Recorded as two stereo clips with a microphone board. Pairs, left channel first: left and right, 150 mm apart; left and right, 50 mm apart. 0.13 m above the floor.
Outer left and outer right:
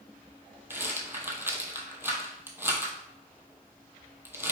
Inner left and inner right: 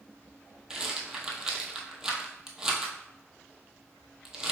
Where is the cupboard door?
No cupboard door in this recording.